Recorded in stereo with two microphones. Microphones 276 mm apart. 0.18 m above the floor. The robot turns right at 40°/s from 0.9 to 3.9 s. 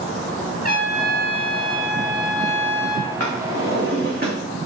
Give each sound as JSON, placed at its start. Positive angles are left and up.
{"t": 0.6, "sound": "a trumpet", "azimuth_deg": -115, "distance_m": 2.5}
{"t": 3.2, "sound": "a drawer", "side_deg": -65, "distance_m": 3.5}